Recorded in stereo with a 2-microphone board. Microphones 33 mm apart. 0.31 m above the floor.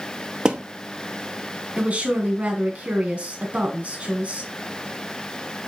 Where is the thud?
25° right (ahead or behind), 0.8 m.